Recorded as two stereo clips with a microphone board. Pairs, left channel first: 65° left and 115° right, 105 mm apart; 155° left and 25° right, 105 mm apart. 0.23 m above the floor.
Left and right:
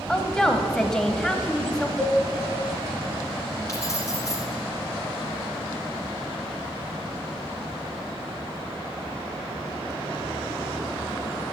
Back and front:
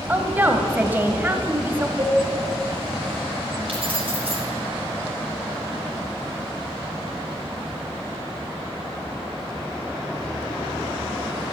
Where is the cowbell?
25° right, 1.9 m.